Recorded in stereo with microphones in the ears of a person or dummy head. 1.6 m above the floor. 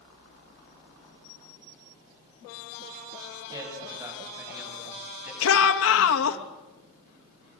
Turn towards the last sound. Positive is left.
turn(degrees=80)